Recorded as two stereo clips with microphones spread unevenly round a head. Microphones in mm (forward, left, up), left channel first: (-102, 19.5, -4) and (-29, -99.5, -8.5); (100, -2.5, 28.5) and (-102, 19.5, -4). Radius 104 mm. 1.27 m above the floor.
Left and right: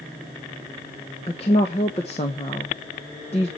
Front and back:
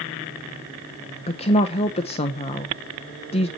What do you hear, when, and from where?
1.3 s a woman speaking: 60° left, 0.9 m